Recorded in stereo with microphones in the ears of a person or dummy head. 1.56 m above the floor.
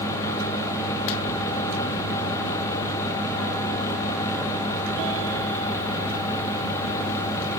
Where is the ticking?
I don't hear ticking.